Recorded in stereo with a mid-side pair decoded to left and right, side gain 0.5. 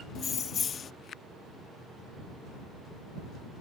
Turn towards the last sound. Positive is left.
turn(degrees=50)